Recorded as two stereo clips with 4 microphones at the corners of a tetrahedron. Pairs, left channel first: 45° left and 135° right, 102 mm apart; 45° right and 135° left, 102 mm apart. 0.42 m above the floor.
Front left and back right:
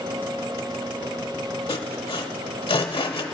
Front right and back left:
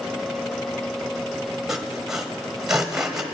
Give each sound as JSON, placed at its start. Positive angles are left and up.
{"t": 1.7, "sound": "sawing", "azimuth_deg": 50, "distance_m": 1.0}